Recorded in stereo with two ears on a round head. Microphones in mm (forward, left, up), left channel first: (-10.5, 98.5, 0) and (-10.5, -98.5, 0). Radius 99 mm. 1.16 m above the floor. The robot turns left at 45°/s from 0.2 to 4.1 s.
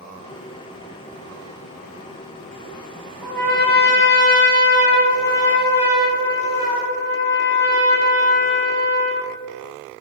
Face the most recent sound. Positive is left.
turn(degrees=130)